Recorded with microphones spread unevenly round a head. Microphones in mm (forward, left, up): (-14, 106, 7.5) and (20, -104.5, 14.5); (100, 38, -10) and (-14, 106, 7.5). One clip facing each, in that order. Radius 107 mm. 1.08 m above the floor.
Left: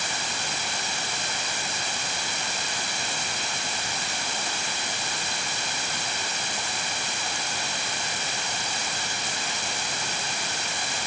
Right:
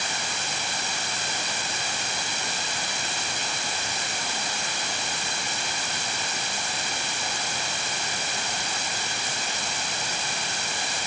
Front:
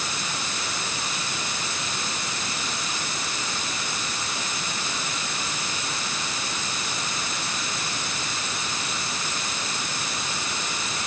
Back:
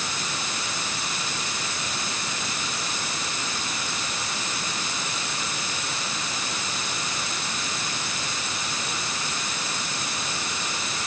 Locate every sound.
Only background noise.